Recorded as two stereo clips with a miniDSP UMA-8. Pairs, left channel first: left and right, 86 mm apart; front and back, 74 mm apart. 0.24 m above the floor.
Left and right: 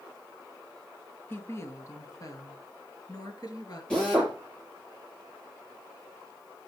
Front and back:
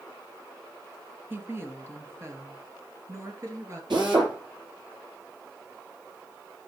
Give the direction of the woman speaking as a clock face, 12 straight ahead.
7 o'clock.